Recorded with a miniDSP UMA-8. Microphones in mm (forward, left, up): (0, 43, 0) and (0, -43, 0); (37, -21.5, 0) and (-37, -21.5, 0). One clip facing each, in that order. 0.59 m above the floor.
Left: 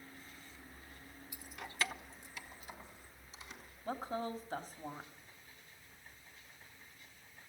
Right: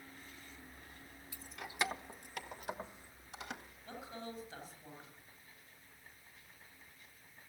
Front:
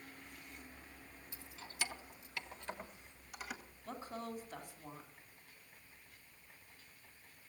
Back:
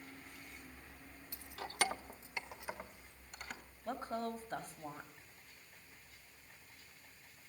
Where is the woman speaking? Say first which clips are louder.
Left 8 dB, back 5 dB; 135° left, 3 m.